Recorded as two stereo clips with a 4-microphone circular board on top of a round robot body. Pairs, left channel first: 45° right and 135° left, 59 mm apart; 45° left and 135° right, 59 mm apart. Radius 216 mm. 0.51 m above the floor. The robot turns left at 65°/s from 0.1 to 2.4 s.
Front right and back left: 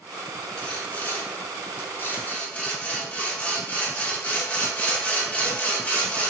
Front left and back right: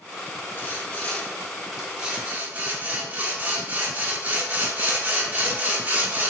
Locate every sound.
0.6 s sawing: 25° left, 1.3 m; by 6.3 s 95° right, 1.3 m